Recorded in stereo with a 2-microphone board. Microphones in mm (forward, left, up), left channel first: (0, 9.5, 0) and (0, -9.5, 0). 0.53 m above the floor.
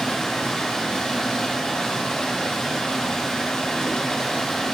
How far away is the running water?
About 2.5 m.